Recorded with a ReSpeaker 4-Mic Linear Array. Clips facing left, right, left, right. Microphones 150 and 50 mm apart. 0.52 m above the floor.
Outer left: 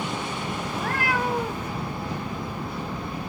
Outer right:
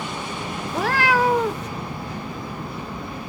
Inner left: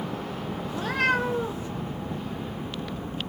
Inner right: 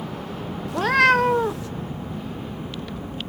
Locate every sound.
0.7 s a cat meowing: 85° right, 0.7 m